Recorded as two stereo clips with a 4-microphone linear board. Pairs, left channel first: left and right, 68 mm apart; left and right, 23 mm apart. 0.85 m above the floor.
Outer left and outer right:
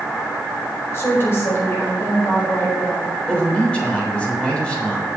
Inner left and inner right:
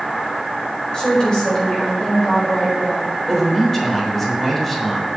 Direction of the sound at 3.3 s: 15° left (ahead or behind).